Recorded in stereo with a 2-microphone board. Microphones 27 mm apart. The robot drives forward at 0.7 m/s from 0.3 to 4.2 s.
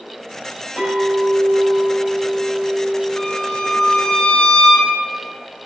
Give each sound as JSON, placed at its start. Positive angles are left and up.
{"t": 0.8, "sound": "a clink", "side_deg": -50, "distance_m": 3.0}
{"t": 3.2, "sound": "a violin", "side_deg": 25, "distance_m": 0.7}